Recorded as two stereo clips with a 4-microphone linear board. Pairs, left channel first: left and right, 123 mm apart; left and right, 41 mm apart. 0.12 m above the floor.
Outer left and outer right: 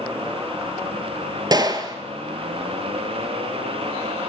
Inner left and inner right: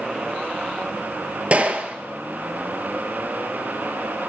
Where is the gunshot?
35° right (ahead or behind), 0.7 m.